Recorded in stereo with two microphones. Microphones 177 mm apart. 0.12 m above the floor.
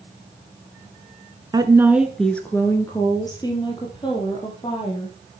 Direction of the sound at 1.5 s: 25° right (ahead or behind).